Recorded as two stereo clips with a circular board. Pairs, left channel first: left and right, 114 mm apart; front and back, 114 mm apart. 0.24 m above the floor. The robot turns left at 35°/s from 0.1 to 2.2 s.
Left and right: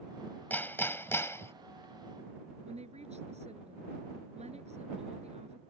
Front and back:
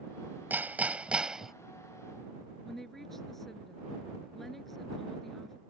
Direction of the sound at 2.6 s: 90° right.